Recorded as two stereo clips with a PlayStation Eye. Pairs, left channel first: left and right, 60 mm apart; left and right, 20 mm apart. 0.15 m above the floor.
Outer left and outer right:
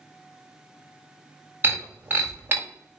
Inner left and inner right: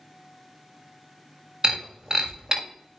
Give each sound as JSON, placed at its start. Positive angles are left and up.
{"t": 1.6, "sound": "breaking glass", "side_deg": -30, "distance_m": 6.0}